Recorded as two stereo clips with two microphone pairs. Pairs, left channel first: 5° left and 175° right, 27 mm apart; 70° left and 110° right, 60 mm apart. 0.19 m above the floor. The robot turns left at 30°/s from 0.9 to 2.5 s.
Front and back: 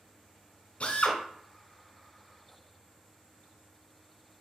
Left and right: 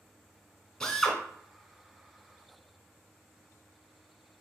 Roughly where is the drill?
Ahead.